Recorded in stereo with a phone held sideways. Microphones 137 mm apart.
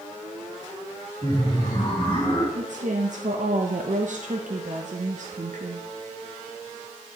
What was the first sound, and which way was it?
Laughter, 40° left (ahead or behind).